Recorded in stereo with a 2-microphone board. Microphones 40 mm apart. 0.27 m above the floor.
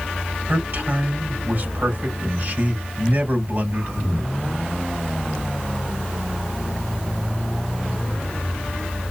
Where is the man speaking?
50° right (ahead or behind), 2.5 m.